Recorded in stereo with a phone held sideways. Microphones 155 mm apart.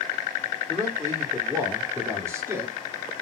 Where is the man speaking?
20° right (ahead or behind), 3.5 m.